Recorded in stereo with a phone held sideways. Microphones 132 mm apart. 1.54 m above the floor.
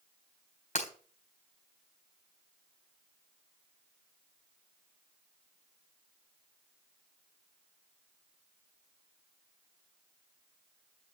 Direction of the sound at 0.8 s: 65° left (ahead or behind).